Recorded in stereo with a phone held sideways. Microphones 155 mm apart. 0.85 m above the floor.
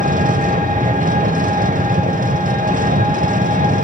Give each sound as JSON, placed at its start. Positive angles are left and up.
{"t": 0.0, "sound": "an engine running", "side_deg": -55, "distance_m": 0.9}